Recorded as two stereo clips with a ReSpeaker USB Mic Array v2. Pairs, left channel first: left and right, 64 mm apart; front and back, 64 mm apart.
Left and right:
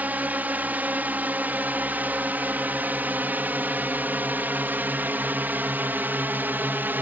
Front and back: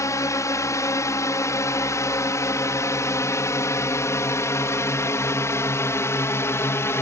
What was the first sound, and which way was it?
A drone, 25° right.